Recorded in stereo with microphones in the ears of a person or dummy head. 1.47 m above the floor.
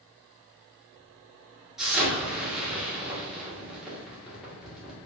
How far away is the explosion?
About 1.7 m.